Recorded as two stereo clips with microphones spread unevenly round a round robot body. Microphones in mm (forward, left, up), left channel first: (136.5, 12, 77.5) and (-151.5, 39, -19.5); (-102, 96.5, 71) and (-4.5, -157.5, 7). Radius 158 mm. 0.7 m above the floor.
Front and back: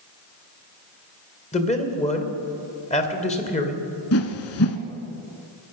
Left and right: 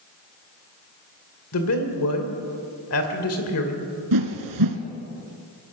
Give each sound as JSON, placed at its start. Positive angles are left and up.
{"t": 1.5, "sound": "a man speaking", "azimuth_deg": 65, "distance_m": 2.5}
{"t": 4.1, "sound": "a whoosh", "azimuth_deg": -35, "distance_m": 1.5}